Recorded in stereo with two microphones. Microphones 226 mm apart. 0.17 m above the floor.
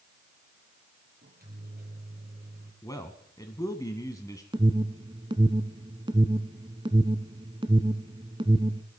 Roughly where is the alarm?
Right.